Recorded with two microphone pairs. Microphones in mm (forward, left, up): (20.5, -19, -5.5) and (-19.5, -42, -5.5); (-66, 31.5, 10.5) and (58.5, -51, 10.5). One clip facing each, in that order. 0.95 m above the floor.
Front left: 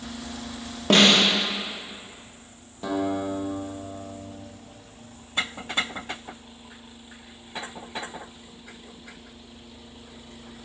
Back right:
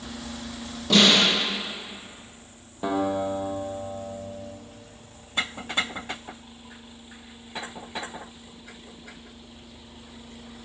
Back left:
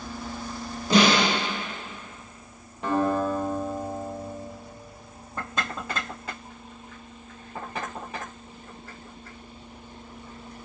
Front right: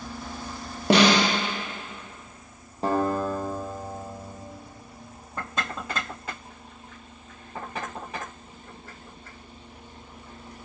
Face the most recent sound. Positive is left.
turn(degrees=-85)